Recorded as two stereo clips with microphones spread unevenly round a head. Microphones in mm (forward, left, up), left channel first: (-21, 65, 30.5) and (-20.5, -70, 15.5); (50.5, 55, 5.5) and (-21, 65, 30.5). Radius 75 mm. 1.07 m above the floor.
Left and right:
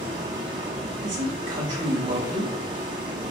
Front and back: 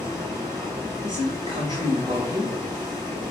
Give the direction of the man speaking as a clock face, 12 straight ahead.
5 o'clock.